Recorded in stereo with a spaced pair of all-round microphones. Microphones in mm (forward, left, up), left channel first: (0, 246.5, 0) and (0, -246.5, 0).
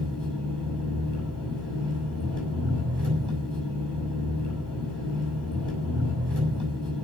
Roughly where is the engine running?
Right.